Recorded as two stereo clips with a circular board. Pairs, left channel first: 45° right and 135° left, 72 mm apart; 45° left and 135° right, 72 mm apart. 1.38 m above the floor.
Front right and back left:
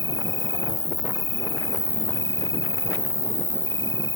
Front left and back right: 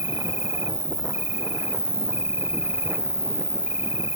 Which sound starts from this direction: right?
An insect, at 0.0 s.